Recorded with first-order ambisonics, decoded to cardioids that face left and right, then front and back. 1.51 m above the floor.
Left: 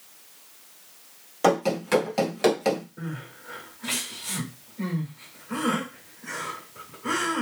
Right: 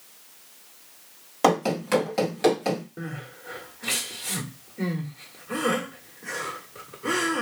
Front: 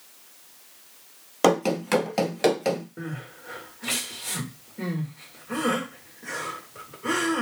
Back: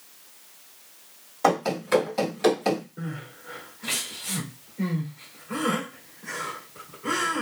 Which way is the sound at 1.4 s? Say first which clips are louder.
Even, front 2 dB; 15° right.